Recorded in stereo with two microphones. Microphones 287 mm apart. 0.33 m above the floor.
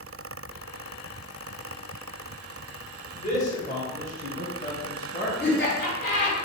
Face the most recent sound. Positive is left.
turn(degrees=35)  # may be behind; listen again after turning